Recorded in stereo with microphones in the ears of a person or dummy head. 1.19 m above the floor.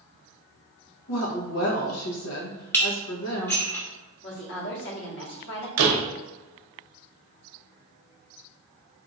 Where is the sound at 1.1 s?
75° left (ahead or behind), 1.0 m.